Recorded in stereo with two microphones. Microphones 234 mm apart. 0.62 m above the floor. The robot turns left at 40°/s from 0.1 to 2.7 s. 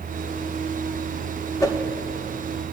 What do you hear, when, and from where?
1.6 s a whoosh: 15° left (ahead or behind), 1.0 m